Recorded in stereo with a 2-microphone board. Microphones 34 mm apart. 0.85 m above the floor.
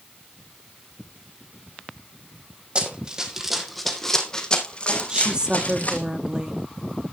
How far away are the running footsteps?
About 2 m.